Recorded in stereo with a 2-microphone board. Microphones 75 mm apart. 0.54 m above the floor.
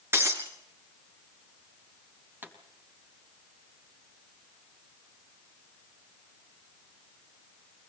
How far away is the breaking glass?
About 3 m.